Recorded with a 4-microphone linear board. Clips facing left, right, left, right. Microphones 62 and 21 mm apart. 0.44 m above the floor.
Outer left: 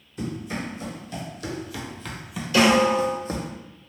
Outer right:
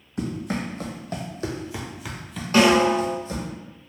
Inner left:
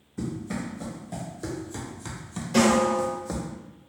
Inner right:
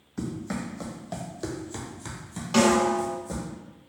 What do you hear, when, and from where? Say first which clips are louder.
0.2 s running footsteps: outer right 3 dB, even; 65° right (ahead or behind), 1.3 m; by 3.5 s 50° left (ahead or behind), 1.0 m
2.5 s a snare drum: outer right 1 dB, even; 50° right (ahead or behind), 1.9 m